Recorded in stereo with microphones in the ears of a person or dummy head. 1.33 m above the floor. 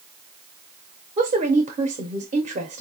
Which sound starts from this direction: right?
A woman speaking, at 1.2 s.